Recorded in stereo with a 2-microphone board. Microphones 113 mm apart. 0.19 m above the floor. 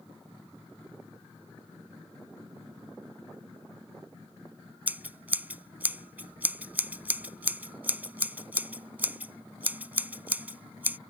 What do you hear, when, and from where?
4.9 s scissors: 15° right (ahead or behind)